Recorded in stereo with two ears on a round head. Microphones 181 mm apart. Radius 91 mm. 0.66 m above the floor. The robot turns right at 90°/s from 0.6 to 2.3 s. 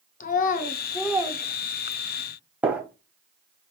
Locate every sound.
0.2 s a child speaking: 40° left (ahead or behind), 0.7 m; by 2.3 s 70° right (ahead or behind), 0.7 m
2.6 s a gunshot: 5° right (ahead or behind), 0.9 m